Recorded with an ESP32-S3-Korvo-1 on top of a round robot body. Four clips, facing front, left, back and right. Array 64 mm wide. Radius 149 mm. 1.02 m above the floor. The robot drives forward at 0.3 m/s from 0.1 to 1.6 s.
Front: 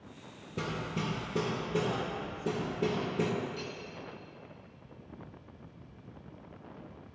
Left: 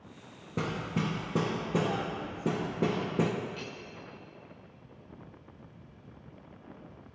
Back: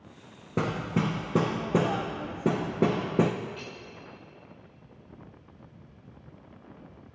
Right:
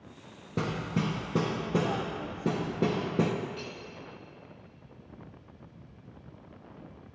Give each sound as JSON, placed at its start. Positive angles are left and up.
{"t": 0.6, "sound": "hammering", "azimuth_deg": -175, "distance_m": 0.6}
{"t": 3.6, "sound": "cutlery clinking", "azimuth_deg": 120, "distance_m": 2.0}